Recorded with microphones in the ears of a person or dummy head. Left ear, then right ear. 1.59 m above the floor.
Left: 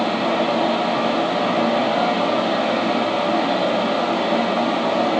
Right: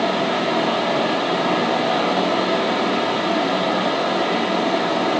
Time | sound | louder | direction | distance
0.0 | a fan | even | 5° right (ahead or behind) | 4.5 m